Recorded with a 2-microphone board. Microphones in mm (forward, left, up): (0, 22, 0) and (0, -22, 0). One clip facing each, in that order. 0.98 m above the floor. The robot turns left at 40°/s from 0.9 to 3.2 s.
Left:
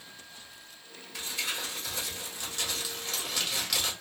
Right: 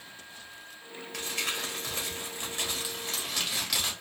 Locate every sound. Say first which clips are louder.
1.1 s crumpling: right 1 dB; 95° right, 1.5 m; by 3.9 s straight behind, 1.5 m